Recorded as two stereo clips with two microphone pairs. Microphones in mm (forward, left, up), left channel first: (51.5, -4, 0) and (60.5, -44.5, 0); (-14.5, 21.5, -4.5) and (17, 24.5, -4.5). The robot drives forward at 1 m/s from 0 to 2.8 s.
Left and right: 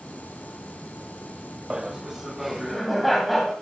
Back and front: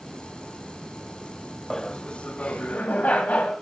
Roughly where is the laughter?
Behind right.